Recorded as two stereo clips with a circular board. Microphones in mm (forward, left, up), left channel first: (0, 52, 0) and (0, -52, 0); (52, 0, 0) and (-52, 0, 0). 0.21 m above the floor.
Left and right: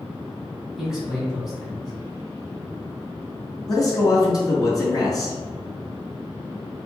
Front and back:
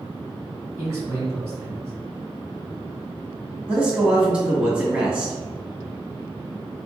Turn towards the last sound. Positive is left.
turn(degrees=105)